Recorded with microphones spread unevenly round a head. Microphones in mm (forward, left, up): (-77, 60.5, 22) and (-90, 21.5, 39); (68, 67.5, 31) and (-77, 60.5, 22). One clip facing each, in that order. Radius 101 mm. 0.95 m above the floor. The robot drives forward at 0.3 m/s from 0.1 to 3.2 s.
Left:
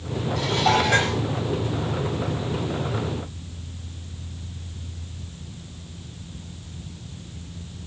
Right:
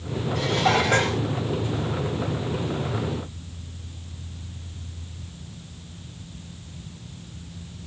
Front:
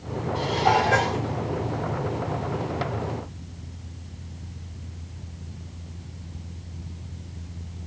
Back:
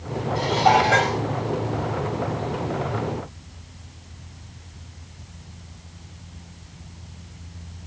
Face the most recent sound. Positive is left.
turn(degrees=-105)